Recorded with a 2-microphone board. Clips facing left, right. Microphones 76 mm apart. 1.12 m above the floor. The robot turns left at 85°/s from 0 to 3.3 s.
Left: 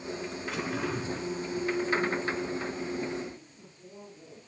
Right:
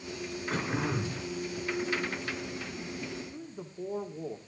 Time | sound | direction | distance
0.5 | throat clearing | 130° right | 4.5 m
3.3 | a man speaking | 85° right | 2.5 m